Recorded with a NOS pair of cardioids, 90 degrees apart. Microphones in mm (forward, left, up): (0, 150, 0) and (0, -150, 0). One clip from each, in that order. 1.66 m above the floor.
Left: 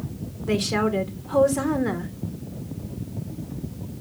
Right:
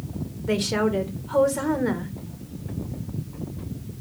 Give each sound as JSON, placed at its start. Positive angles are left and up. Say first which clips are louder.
{"t": 0.5, "sound": "a woman speaking", "louder": "even", "azimuth_deg": 5, "distance_m": 2.0}